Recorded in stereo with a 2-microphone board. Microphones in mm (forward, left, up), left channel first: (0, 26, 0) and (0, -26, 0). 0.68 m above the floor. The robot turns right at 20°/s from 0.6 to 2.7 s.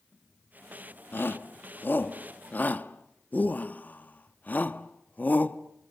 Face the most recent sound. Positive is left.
turn(degrees=35)  # may be behind; listen again after turning